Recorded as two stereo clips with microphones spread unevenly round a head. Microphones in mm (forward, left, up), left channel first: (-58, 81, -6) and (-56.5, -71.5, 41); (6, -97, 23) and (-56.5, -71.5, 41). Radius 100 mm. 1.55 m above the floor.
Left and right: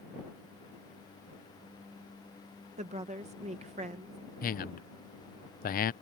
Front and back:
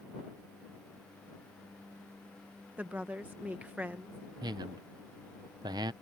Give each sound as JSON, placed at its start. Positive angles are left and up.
{"t": 2.8, "sound": "a woman speaking", "azimuth_deg": -135}
{"t": 4.4, "sound": "a man speaking", "azimuth_deg": 125}